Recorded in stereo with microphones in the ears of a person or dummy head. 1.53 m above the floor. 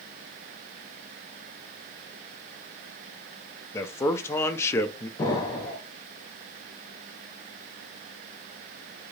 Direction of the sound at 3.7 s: 15° left (ahead or behind).